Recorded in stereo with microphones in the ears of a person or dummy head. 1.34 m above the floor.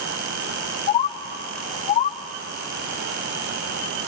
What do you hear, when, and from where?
0.9 s a bird: 35° left (ahead or behind), 0.6 m